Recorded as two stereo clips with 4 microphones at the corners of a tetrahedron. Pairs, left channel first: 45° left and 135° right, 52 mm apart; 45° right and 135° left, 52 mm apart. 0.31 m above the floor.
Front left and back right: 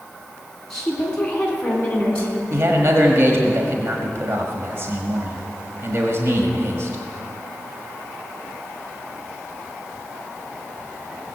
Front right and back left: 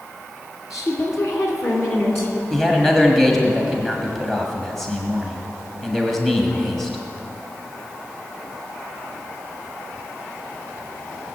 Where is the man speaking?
130° right, 1.4 m.